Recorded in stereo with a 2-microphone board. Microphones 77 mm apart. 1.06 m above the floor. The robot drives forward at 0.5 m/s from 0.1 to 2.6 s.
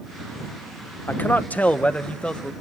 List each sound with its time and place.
1.1 s a man speaking: 25° left (ahead or behind), 0.6 m; by 2.5 s 15° left (ahead or behind), 1.1 m